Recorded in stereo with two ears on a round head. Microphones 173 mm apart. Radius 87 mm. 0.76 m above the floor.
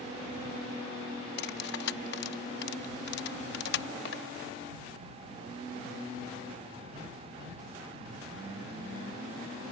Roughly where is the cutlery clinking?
Left.